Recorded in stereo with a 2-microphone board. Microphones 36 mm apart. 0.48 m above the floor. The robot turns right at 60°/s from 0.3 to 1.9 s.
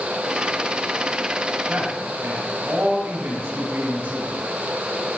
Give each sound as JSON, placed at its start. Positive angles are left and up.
{"t": 1.7, "sound": "a man speaking", "side_deg": -65, "distance_m": 5.0}